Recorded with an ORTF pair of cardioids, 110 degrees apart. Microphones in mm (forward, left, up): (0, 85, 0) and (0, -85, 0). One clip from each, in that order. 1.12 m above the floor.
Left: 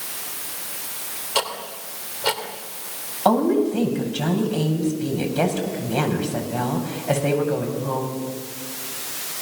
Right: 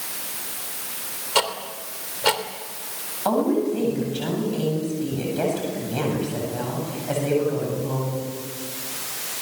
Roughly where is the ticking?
Ahead.